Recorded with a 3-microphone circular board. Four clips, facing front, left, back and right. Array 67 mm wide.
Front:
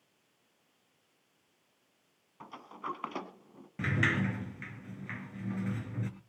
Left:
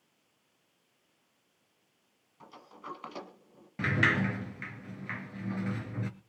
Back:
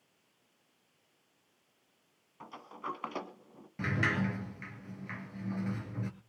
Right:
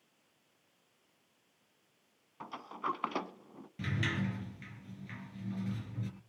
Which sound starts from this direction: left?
A sliding door, at 3.8 s.